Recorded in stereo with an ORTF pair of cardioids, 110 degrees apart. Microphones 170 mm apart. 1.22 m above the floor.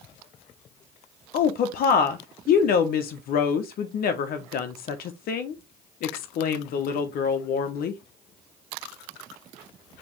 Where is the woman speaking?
65° left, 0.8 m.